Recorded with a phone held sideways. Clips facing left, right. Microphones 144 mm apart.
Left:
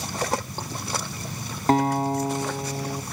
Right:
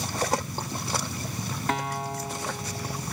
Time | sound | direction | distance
1.7 | a guitar | 35° left (ahead or behind) | 1.4 m